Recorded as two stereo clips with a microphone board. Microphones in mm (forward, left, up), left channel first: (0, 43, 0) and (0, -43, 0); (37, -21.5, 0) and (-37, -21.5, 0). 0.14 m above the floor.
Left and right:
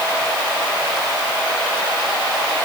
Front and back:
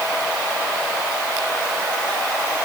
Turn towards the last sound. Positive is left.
No sound to turn to.